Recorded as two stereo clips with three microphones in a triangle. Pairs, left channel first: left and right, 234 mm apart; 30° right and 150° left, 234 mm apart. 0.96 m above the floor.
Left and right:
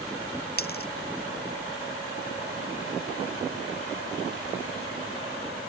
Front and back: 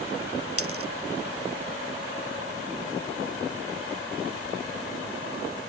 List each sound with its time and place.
0.6 s a dropped coin: 135° left